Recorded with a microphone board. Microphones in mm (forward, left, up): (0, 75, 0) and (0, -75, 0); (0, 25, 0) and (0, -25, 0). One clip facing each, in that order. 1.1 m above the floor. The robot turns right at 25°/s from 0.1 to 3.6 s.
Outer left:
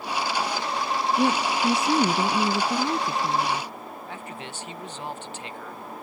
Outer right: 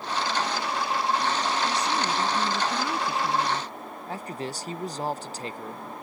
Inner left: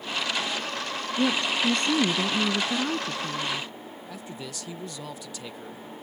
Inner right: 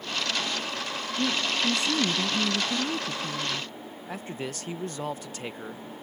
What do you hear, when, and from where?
1.2 s a woman speaking: 110° left; by 3.7 s 175° left
4.1 s a man speaking: 35° right (ahead or behind)